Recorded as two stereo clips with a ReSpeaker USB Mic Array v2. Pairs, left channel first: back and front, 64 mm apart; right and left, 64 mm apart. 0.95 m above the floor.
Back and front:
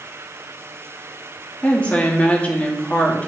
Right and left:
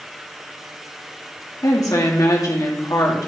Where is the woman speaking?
110° right, 1.8 m.